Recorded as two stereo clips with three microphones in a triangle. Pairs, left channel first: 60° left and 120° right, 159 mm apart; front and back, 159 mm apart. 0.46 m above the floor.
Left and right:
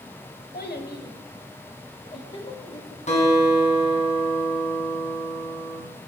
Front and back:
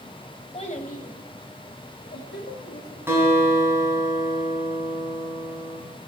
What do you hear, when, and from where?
0.5 s a child speaking: 50° left, 1.2 m; by 3.0 s straight ahead, 1.8 m
3.1 s a guitar: 105° left, 4 m